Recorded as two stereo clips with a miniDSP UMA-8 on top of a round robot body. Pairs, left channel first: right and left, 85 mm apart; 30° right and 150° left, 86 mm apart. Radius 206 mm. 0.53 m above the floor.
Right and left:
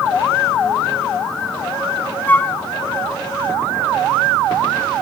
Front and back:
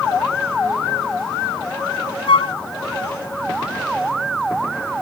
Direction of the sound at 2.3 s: 20° right.